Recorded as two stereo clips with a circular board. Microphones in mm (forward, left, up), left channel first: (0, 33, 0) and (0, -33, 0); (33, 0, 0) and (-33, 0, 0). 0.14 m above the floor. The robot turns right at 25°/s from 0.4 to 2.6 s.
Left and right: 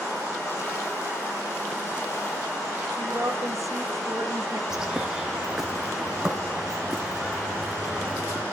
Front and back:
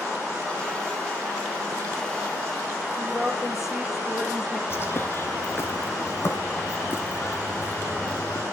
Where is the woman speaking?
95° right, 2.5 m.